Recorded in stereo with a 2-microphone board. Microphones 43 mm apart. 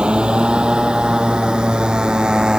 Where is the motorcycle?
20° right (ahead or behind); by 2.6 s 15° right (ahead or behind).